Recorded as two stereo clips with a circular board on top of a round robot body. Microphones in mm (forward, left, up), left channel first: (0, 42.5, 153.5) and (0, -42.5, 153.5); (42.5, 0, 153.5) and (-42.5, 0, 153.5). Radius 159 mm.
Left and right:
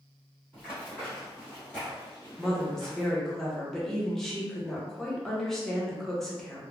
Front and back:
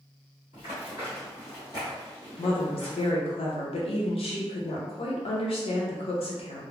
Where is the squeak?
I don't hear a squeak.